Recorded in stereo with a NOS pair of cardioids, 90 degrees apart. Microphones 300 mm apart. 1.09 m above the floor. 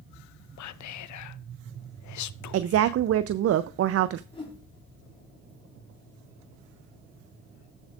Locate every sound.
0.6 s whispering: 70° left, 0.7 m
2.5 s a woman speaking: 50° right, 0.5 m
4.3 s a whoosh: 15° left, 4.5 m